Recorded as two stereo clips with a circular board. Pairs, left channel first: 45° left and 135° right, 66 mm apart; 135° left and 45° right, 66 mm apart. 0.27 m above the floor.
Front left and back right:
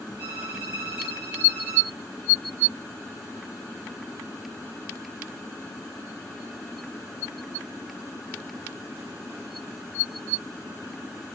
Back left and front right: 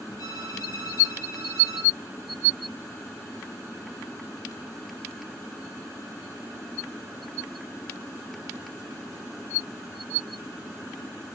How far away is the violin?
About 8 m.